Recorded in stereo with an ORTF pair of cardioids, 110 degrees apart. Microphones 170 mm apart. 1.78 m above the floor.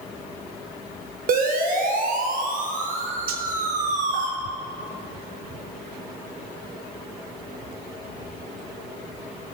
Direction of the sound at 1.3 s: 60° right.